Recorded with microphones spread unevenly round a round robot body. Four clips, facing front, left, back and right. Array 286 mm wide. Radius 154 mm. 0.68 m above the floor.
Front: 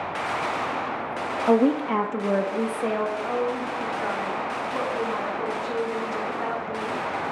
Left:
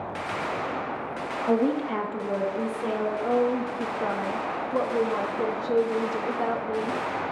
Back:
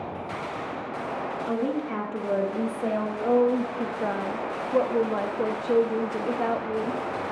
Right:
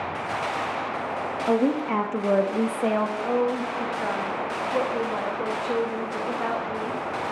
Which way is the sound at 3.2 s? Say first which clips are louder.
Even, back 4 dB; 165° left.